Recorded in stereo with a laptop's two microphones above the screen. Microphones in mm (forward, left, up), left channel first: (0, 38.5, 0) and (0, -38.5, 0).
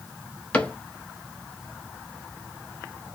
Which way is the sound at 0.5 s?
15° left (ahead or behind).